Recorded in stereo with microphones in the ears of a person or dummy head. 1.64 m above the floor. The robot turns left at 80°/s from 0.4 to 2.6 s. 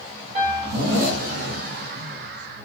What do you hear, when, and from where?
0.3 s a piano: 145° right, 1.3 m; by 0.8 s 175° right, 1.3 m